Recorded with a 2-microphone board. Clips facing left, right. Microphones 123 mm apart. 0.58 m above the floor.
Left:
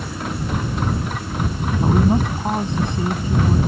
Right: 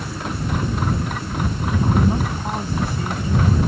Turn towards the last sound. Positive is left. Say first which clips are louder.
# left 3 dB
turn(degrees=25)  # may be behind; listen again after turning